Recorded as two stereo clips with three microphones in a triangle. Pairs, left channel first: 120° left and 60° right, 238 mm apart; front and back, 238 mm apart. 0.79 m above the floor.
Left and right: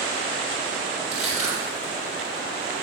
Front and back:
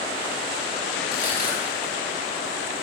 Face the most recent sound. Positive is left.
turn(degrees=-45)